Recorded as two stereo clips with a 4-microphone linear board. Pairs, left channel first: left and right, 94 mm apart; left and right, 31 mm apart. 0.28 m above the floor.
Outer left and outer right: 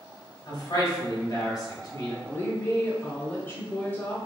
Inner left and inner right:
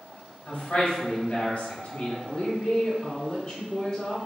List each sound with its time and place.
0.5 s a man speaking: 45° left (ahead or behind), 1.6 m
2.2 s a woman speaking: 20° left (ahead or behind), 0.9 m